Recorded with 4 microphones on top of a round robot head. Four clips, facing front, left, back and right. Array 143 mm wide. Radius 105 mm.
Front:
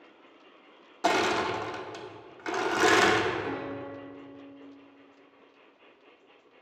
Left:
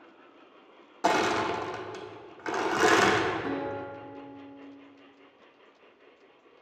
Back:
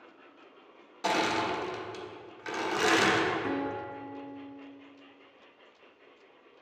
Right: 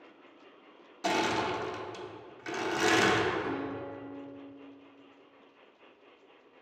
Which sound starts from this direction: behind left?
A guitar, at 3.4 s.